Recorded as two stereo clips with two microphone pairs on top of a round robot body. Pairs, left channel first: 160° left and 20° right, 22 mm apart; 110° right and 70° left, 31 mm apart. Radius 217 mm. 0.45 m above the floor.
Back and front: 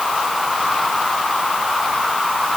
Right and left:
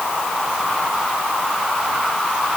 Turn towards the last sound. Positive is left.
No sound to turn to.